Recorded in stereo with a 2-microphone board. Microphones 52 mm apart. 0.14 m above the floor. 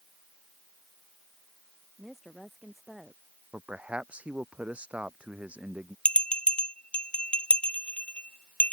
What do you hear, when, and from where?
2.0 s a woman speaking: 5° right (ahead or behind)
3.5 s a man speaking: 20° right (ahead or behind)
6.0 s a bell: 20° left (ahead or behind)